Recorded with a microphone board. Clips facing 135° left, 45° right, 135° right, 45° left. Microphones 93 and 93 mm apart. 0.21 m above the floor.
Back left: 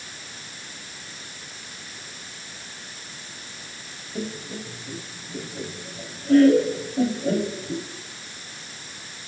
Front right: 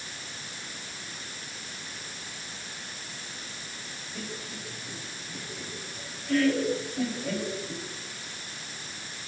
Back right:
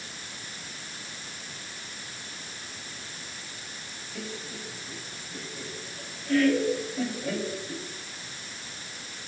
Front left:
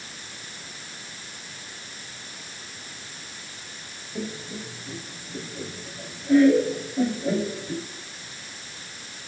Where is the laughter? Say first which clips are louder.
Back left 8 dB, front left 6 dB; 105° left, 1.7 m.